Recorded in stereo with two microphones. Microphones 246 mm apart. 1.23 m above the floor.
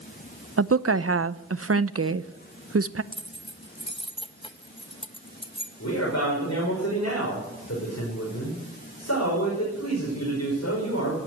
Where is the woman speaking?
60° right (ahead or behind), 0.7 m.